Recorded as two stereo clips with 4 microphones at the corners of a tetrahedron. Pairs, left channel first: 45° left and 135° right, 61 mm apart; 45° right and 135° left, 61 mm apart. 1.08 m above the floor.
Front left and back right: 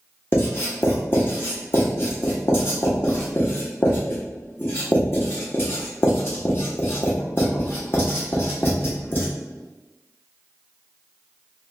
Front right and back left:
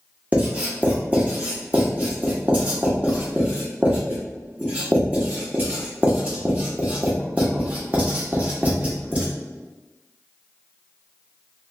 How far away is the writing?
About 1.1 m.